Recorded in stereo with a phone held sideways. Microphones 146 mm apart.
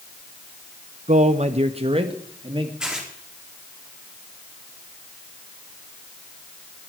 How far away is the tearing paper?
About 4 m.